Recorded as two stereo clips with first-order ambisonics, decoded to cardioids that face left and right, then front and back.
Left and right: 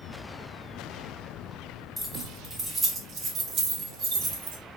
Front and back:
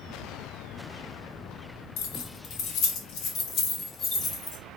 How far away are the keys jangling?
About 1.4 m.